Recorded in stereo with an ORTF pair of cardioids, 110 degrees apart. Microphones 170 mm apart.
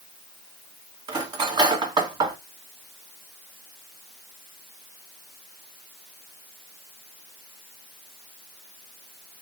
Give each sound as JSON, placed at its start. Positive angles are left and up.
{"t": 1.1, "sound": "cutlery clinking", "azimuth_deg": -25, "distance_m": 1.8}